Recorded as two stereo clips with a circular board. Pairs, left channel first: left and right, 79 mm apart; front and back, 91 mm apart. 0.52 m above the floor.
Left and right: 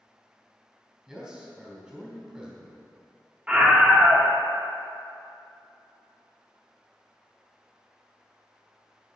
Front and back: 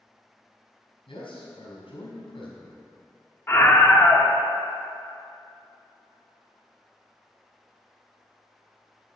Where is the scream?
30° right, 1.2 m.